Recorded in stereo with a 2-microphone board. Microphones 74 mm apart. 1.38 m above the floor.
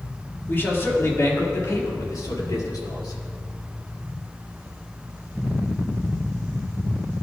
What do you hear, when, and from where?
0.5 s a man speaking: 30° left (ahead or behind), 3.5 m; by 3.2 s 65° left (ahead or behind), 4 m